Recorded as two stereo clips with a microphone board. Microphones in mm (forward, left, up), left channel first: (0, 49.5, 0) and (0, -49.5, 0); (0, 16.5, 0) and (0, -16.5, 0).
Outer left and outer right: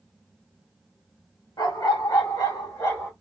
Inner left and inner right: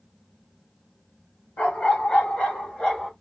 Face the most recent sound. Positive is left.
turn(degrees=30)  # may be behind; listen again after turning